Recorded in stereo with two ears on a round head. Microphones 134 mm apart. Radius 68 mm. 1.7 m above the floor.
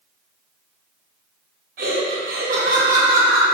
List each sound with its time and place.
1.8 s laughter: 60° right (ahead or behind), 1.1 m